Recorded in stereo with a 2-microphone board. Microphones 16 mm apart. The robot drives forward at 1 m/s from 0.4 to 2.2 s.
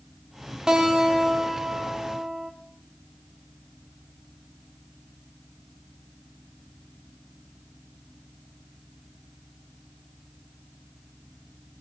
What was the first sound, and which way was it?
A guitar, 55° right (ahead or behind).